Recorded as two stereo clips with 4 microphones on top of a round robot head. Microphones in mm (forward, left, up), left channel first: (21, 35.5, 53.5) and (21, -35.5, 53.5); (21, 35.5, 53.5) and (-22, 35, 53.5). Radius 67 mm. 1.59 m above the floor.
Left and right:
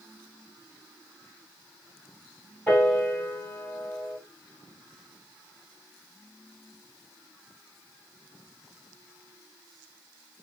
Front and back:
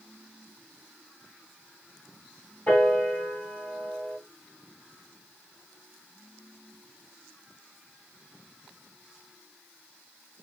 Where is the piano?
25° left, 1.4 m.